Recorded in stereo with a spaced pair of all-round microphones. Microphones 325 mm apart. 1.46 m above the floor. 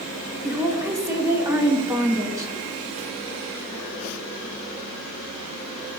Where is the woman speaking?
10° right (ahead or behind), 1.1 m.